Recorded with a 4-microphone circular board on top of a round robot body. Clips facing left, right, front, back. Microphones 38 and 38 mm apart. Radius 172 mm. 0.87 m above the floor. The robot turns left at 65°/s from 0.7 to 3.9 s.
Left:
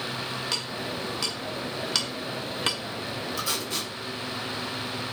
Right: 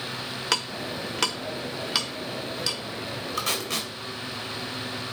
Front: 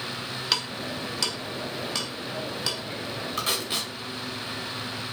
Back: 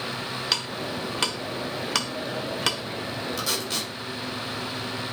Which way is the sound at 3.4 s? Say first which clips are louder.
Right 4 dB, front 3 dB; 50° right.